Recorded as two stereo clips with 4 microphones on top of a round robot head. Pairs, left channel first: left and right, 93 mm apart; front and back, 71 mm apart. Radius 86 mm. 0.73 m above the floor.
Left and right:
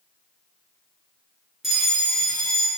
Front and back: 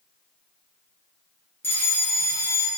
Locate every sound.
1.6 s a fire alarm: 5° right, 1.6 m